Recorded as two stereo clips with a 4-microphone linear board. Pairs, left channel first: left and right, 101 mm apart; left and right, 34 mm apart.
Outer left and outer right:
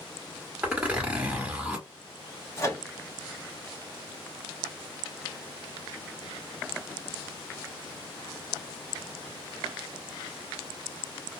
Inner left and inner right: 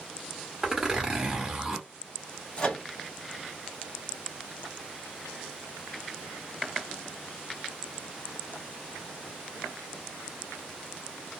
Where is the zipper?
15° right (ahead or behind), 1.0 m.